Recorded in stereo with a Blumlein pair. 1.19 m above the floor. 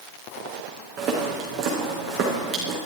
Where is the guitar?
No guitar in this recording.